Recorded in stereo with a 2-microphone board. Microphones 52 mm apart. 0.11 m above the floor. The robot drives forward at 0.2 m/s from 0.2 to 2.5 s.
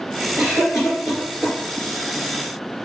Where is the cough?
10° right (ahead or behind), 1.4 m.